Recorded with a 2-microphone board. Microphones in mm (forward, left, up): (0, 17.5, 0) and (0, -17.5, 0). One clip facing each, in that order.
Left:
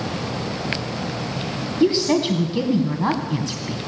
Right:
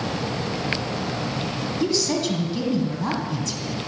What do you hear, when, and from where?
1.8 s a woman speaking: 25° left (ahead or behind), 1.8 m